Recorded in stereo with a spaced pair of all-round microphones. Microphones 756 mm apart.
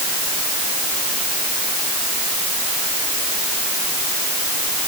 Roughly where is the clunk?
No clunk in this recording.